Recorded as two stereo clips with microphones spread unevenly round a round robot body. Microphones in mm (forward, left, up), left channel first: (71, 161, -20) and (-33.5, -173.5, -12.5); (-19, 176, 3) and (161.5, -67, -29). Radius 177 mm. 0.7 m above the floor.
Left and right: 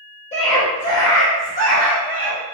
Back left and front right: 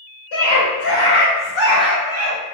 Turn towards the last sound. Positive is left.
turn(degrees=30)